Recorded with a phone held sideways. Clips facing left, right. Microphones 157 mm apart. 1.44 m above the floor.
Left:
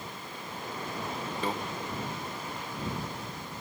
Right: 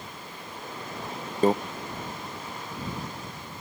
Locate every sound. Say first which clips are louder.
1.4 s a microwave: right 12 dB; 45° right (ahead or behind)